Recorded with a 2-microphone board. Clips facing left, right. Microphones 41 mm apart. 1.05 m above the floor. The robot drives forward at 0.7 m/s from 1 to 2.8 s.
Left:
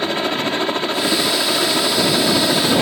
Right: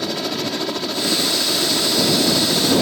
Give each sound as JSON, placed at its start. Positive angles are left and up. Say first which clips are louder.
{"t": 0.0, "sound": "a helicopter", "louder": "left 4 dB", "side_deg": 35}